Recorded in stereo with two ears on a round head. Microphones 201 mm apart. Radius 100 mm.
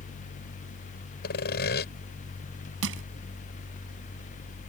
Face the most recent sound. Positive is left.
turn(degrees=-65)  # may be behind; listen again after turning